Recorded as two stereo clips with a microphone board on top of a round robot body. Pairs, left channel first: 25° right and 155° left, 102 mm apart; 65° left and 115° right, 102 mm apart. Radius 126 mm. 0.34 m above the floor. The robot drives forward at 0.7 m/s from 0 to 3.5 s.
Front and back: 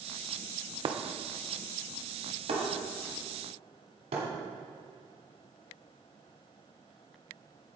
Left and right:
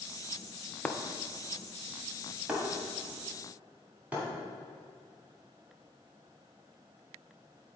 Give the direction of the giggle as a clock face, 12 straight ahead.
I don't hear a giggle.